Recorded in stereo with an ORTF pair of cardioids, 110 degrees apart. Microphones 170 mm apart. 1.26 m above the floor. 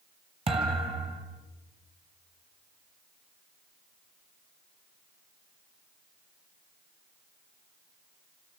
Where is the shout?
I don't hear a shout.